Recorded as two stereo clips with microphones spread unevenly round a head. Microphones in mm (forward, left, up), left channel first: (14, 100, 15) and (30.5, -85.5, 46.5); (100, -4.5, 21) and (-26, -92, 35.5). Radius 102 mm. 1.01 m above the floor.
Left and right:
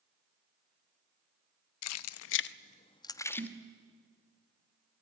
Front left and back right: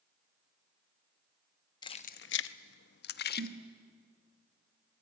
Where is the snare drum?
155° right, 1.1 m.